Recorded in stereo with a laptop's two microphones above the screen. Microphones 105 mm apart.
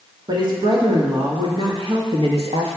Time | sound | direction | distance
0.3 | a woman speaking | 45° right (ahead or behind) | 2.5 m